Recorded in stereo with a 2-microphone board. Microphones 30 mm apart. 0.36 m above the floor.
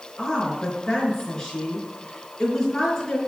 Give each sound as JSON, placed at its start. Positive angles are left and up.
{"t": 0.2, "sound": "a woman speaking", "side_deg": 20, "distance_m": 5.0}